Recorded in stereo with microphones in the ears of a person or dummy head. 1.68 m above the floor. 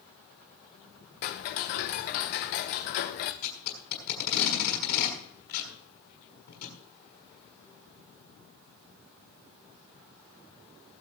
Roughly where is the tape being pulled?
Left.